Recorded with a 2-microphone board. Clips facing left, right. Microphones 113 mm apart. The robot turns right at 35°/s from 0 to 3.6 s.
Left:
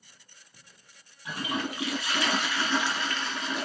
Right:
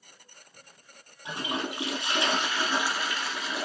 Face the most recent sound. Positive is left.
turn(degrees=0)  # may be behind; listen again after turning